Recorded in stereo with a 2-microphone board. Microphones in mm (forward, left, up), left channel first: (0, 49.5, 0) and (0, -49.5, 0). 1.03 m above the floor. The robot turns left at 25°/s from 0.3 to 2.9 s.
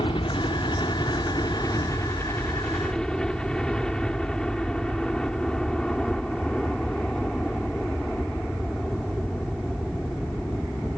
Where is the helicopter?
75° left; by 11.0 s 10° left.